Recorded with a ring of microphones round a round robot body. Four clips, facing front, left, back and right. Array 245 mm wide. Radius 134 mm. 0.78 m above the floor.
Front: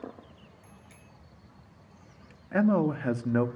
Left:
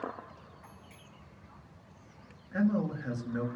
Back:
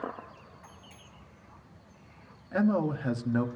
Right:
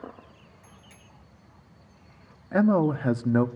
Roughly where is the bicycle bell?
Ahead right.